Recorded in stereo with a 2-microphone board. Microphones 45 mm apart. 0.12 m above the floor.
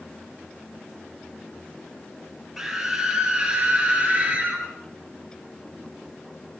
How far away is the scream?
About 2.5 m.